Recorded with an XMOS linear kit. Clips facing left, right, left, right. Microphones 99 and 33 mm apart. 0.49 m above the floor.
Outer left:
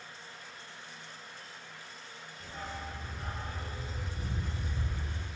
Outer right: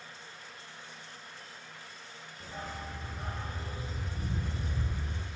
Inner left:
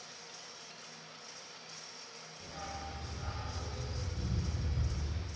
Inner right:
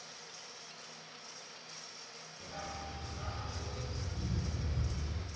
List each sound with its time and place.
2.4 s a dog barking: 35° right (ahead or behind), 5.5 m